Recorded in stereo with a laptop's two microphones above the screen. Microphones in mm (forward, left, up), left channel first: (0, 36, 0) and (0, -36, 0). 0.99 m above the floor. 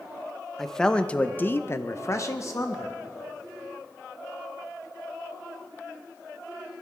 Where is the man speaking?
5° left (ahead or behind), 1.1 m; by 3.0 s 40° left (ahead or behind), 1.2 m.